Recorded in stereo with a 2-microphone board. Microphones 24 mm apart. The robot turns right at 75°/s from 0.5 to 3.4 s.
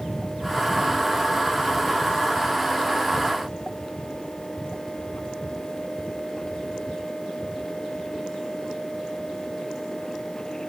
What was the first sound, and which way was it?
Only background noise.